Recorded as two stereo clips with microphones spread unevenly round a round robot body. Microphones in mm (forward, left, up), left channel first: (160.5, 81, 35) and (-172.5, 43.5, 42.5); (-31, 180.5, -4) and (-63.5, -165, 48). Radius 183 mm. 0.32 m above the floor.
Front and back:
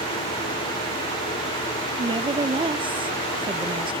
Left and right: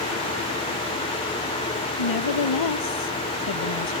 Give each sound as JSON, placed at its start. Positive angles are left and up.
{"t": 2.0, "sound": "a woman speaking", "azimuth_deg": 110}